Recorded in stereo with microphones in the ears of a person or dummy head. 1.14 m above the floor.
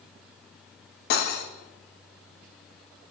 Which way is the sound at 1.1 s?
60° left (ahead or behind).